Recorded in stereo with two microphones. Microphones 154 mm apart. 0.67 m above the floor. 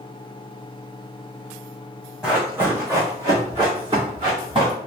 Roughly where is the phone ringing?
I don't hear a phone ringing.